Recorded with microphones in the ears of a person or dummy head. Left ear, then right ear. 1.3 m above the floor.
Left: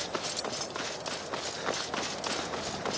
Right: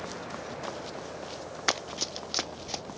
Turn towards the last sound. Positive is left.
turn(degrees=-80)